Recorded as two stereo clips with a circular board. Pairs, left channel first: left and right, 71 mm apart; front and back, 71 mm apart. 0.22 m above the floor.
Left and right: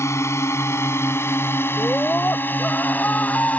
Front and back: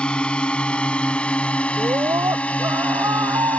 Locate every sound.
0.0 s a drone: 70° left; by 3.6 s 45° left
1.8 s a scream: 155° left